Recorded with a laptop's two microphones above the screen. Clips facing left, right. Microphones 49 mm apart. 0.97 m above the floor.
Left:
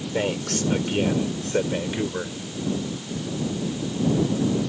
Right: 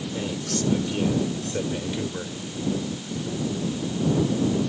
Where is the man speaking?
55° left (ahead or behind); by 2.4 s 25° left (ahead or behind).